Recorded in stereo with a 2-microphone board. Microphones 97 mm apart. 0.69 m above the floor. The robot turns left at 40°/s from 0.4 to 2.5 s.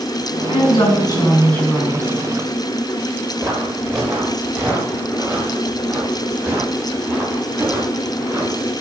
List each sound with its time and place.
0.5 s a woman speaking: 60° left, 6 m; by 2.1 s 5° right, 6 m
3.4 s footsteps: 30° right (ahead or behind), 6.5 m; by 8.7 s 25° right (ahead or behind), 9.5 m